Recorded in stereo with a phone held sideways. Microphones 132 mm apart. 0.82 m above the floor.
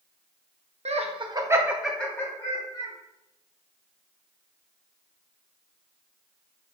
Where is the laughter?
55° right (ahead or behind), 0.7 m; by 2.9 s 30° left (ahead or behind), 1.2 m.